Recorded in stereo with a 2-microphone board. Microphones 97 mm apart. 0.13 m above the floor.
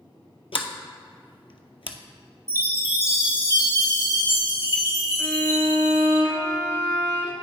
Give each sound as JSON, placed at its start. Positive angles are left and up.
{"t": 0.5, "sound": "a sliding door", "side_deg": 75, "distance_m": 0.6}
{"t": 2.5, "sound": "a chime", "side_deg": -35, "distance_m": 2.0}
{"t": 5.2, "sound": "a violin", "side_deg": 30, "distance_m": 1.3}